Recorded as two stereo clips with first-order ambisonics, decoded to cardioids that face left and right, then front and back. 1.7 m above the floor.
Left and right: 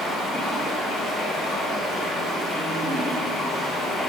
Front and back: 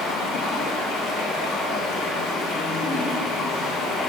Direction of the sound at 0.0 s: 15° left.